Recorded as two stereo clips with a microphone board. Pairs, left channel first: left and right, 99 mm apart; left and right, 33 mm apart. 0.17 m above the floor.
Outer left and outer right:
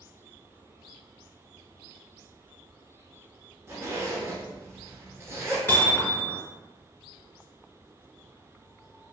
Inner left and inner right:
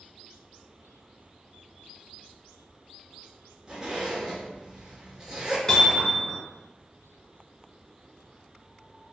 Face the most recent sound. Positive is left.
turn(degrees=20)  # may be behind; listen again after turning